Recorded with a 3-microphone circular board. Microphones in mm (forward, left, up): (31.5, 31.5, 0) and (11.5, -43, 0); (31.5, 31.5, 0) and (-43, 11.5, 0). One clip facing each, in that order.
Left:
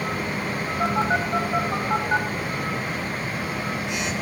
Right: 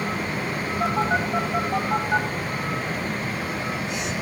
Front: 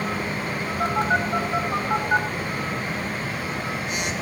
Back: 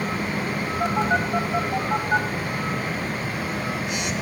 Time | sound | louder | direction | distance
0.8 | a phone buzzing | even, even | 65° left | 2.5 m